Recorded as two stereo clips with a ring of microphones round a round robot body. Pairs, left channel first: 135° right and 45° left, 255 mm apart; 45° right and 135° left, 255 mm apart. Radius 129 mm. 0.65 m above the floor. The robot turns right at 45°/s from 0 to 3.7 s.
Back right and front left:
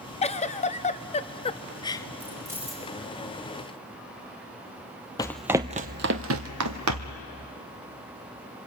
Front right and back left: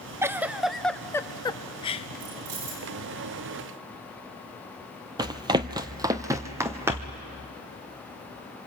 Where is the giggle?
155° right, 0.6 m; by 2.1 s 75° right, 0.6 m.